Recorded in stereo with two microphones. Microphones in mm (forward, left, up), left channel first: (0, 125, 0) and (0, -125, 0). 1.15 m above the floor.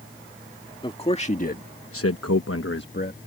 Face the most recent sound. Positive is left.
turn(degrees=35)  # may be behind; listen again after turning